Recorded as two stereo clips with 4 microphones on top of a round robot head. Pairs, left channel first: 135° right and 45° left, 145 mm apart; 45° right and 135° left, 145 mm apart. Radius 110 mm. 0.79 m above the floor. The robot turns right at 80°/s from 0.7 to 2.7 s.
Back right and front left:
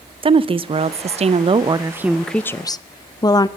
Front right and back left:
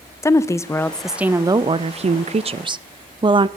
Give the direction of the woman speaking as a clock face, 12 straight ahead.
11 o'clock.